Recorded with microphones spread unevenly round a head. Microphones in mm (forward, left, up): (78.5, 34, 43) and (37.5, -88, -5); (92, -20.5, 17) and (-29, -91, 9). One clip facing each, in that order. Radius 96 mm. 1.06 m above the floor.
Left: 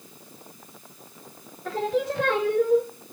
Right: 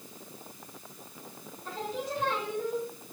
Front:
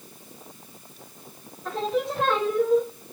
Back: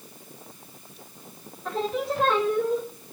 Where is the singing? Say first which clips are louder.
Left 10 dB, front 1 dB; 120° left, 0.8 m.